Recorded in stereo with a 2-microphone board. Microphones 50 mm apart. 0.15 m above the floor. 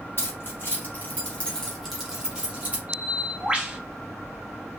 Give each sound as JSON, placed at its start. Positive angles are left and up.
{"t": 0.2, "sound": "keys jangling", "side_deg": 55, "distance_m": 1.7}
{"t": 2.9, "sound": "a bird", "side_deg": -20, "distance_m": 0.7}